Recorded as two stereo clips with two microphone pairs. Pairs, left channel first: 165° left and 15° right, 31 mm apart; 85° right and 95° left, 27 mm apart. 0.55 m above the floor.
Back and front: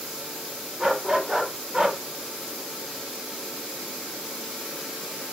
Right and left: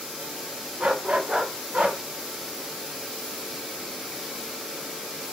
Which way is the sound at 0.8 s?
50° left.